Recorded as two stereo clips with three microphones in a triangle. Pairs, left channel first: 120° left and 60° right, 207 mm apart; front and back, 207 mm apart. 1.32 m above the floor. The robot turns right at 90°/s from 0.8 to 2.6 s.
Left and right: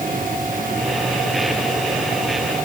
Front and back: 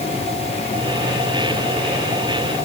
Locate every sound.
Only background noise.